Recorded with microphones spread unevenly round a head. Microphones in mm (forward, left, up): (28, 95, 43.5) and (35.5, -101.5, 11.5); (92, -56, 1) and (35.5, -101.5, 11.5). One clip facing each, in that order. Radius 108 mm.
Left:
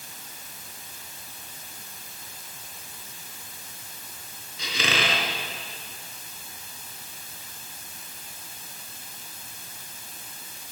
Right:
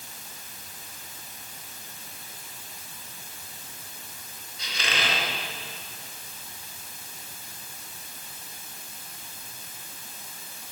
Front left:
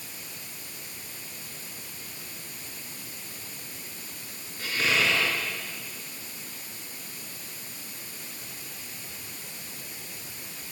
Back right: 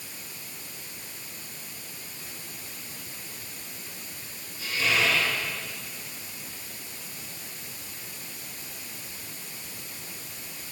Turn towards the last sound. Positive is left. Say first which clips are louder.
# left 4 dB, even
turn(degrees=110)